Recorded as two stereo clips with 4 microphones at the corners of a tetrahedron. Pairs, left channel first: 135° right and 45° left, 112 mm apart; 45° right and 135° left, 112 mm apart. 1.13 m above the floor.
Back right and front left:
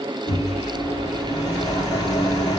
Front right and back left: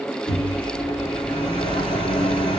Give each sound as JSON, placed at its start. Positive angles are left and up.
{"t": 0.3, "sound": "a microwave", "azimuth_deg": -90, "distance_m": 2.5}